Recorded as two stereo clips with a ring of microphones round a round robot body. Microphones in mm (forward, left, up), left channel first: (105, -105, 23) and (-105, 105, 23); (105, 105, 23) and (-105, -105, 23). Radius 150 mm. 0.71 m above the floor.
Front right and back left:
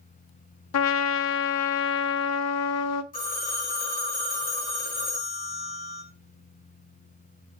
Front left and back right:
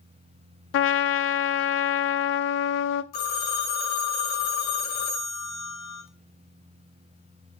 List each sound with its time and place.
0.7 s a trumpet: 5° right, 0.5 m
3.1 s a phone ringing: 20° left, 1.9 m